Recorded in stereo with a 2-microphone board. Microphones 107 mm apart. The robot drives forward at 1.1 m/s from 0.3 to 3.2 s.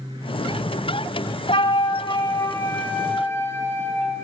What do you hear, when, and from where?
1.5 s a flute: 60° left (ahead or behind), 1.0 m; by 4.2 s 20° left (ahead or behind), 2.5 m